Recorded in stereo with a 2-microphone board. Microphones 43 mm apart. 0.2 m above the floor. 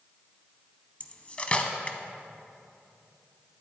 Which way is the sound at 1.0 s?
30° left (ahead or behind).